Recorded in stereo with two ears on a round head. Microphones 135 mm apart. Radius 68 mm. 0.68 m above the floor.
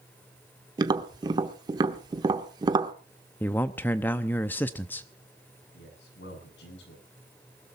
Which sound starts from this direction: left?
A man speaking, at 5.7 s.